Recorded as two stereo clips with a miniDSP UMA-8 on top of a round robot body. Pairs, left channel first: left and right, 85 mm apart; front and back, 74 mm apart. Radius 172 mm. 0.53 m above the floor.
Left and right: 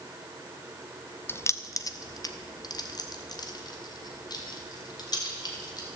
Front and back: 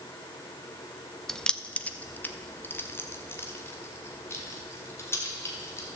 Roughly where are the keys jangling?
Left.